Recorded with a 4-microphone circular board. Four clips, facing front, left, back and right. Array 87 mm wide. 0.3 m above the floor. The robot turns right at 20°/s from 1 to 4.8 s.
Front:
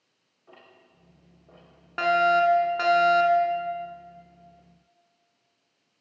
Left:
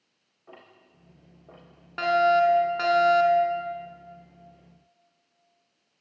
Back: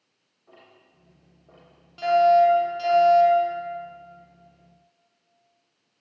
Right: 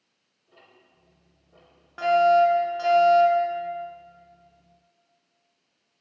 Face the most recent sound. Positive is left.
turn(degrees=75)